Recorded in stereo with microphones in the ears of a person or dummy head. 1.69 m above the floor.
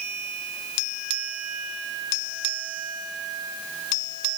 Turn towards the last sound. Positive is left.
No sound to turn to.